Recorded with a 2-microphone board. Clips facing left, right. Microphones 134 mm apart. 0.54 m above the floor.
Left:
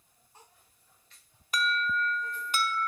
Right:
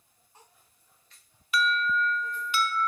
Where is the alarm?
40° left (ahead or behind), 0.6 m.